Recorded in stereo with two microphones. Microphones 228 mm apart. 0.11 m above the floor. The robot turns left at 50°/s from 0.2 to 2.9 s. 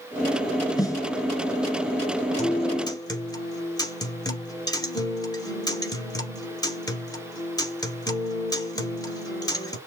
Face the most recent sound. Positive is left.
turn(degrees=15)  # may be behind; listen again after turning